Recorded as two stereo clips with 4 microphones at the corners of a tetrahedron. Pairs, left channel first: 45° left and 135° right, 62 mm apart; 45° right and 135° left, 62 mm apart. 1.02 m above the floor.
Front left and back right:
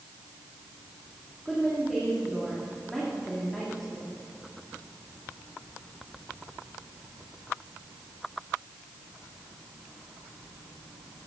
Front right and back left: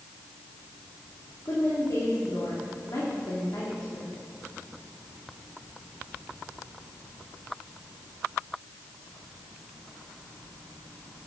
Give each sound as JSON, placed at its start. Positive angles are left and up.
{"t": 1.4, "sound": "a woman speaking", "azimuth_deg": -40, "distance_m": 2.5}